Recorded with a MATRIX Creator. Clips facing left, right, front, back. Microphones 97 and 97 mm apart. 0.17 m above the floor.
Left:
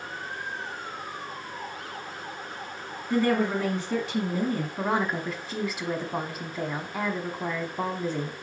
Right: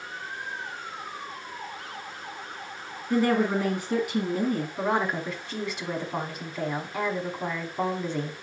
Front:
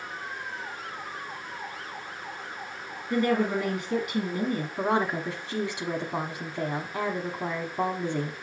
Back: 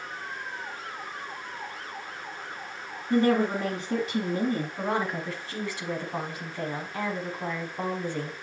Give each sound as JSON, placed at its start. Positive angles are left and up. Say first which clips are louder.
{"t": 3.1, "sound": "a woman speaking", "louder": "right 1 dB, back 2 dB", "azimuth_deg": -160, "distance_m": 1.5}
{"t": 4.8, "sound": "a woman speaking", "louder": "even, front 3 dB", "azimuth_deg": 10, "distance_m": 1.0}